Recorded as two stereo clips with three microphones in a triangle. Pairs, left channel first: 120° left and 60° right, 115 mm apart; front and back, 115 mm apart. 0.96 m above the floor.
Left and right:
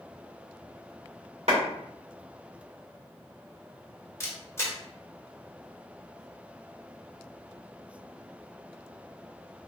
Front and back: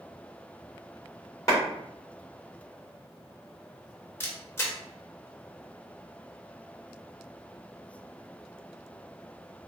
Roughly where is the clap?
Ahead right.